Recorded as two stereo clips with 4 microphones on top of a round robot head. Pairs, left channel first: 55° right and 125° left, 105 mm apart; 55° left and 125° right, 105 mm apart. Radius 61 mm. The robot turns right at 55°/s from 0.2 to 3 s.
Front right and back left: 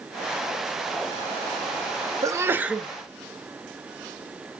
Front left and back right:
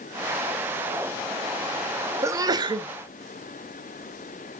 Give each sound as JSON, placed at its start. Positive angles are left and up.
{"t": 2.2, "sound": "a sneeze", "azimuth_deg": 180, "distance_m": 0.9}